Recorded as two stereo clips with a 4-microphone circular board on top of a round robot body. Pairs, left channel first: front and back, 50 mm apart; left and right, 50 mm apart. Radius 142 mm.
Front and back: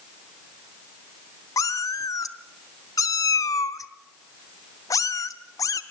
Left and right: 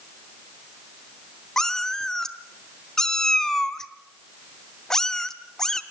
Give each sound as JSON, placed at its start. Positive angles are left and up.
{"t": 1.6, "sound": "a cat meowing", "azimuth_deg": 10, "distance_m": 0.7}